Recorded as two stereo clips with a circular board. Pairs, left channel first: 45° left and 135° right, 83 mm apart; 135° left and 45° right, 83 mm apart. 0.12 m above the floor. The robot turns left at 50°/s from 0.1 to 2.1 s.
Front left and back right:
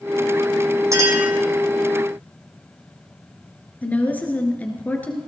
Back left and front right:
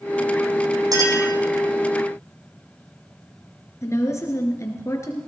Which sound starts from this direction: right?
A clink, at 0.9 s.